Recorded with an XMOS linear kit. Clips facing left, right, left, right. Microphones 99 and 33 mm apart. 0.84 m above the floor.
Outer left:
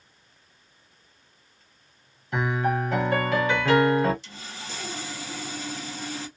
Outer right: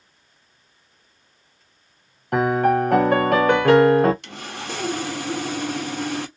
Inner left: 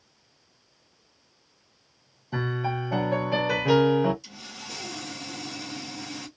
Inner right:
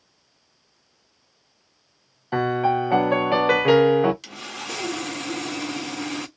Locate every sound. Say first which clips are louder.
2.3 s a piano: outer right 8 dB, inner right 8 dB; 60° right (ahead or behind), 0.8 m
4.2 s sawing: outer right 8 dB, inner right 8 dB; 70° right (ahead or behind), 0.6 m